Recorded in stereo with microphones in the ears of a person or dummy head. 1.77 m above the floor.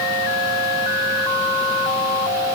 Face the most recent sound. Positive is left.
No sound to turn to.